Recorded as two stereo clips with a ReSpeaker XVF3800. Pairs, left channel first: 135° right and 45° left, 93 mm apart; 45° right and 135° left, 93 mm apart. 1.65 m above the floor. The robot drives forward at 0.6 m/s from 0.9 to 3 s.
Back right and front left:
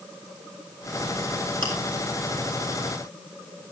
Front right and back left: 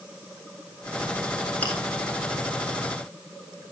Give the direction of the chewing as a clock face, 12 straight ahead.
11 o'clock.